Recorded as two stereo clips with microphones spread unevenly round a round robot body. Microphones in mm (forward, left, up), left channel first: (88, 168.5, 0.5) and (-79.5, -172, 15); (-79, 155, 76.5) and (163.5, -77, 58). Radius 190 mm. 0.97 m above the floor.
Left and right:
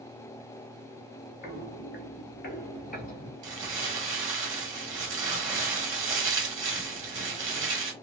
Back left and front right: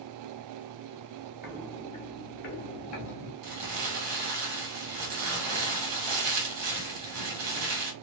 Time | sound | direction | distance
1.4 | footsteps | 40° left | 1.0 m
3.4 | crumpling | 45° right | 1.7 m